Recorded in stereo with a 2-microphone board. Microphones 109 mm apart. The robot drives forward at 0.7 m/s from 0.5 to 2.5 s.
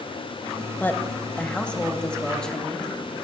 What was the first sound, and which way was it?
A woman speaking, 15° left (ahead or behind).